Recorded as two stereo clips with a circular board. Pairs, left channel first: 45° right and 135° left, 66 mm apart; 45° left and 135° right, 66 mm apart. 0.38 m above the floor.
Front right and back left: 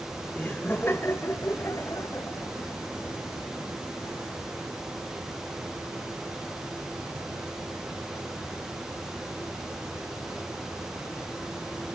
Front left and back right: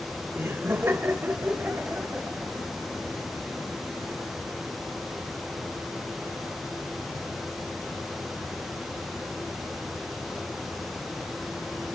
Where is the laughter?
100° right, 1.2 m; by 4.2 s 65° right, 2.5 m.